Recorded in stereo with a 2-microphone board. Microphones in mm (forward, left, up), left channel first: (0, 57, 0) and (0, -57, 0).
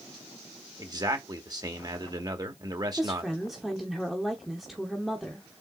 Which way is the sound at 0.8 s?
35° right (ahead or behind).